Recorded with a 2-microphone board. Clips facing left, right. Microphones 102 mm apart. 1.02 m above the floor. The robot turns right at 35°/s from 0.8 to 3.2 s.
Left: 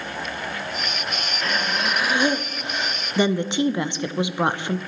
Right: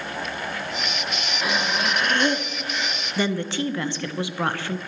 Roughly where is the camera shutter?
No camera shutter in this recording.